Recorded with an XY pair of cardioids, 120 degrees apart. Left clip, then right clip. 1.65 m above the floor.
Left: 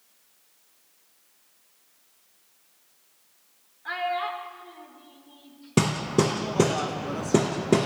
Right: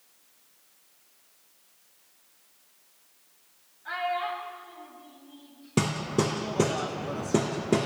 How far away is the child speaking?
About 3 m.